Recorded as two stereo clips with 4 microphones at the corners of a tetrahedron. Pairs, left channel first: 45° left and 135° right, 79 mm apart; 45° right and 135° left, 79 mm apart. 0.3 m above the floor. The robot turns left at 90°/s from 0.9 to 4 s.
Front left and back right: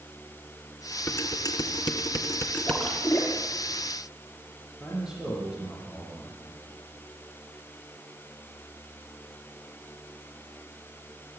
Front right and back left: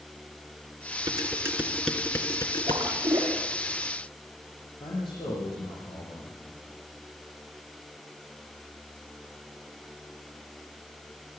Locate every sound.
1.1 s dishes clattering: 110° left, 2.5 m; by 2.8 s 50° right, 2.5 m
2.7 s a splash: 130° left, 6.5 m; by 3.4 s 65° left, 6.5 m
4.8 s a man speaking: 55° right, 9.5 m